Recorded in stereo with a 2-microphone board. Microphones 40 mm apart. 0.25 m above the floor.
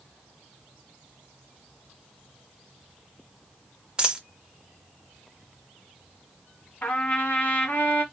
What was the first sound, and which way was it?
A dropped coin, 20° right (ahead or behind).